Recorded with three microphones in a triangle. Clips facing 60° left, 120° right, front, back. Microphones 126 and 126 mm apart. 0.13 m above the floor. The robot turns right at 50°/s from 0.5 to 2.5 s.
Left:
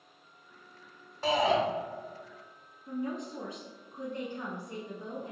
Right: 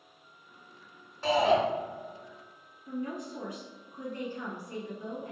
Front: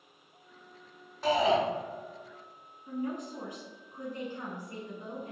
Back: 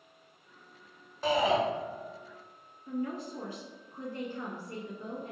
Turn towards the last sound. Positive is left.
turn(degrees=45)